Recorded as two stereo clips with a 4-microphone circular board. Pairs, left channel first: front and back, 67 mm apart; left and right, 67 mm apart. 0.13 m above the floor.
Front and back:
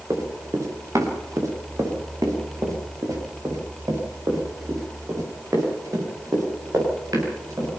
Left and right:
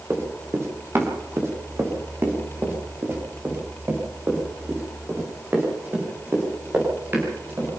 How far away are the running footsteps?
About 4.5 m.